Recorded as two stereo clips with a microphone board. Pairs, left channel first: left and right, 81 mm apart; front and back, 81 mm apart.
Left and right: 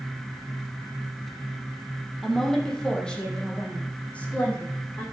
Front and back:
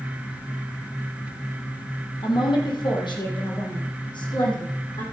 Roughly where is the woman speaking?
Ahead.